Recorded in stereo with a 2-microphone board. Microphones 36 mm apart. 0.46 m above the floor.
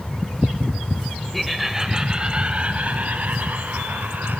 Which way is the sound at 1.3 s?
5° left (ahead or behind).